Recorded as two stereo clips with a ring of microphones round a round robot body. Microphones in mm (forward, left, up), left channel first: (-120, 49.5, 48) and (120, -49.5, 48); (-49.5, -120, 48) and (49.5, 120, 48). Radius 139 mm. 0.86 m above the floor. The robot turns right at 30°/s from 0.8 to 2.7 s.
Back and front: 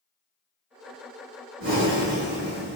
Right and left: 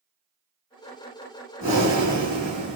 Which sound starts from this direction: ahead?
Breathing, at 1.6 s.